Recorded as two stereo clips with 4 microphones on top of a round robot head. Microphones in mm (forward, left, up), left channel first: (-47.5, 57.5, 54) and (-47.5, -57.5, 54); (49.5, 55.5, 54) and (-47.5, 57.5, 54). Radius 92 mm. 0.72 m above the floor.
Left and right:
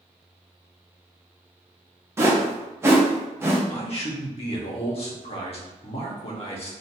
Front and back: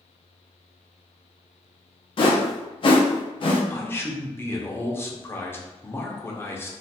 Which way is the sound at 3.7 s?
65° left.